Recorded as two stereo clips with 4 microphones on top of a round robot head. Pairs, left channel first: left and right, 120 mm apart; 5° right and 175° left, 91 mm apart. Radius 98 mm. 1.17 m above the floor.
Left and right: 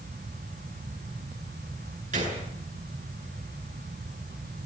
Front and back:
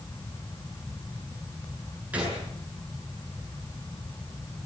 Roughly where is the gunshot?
Right.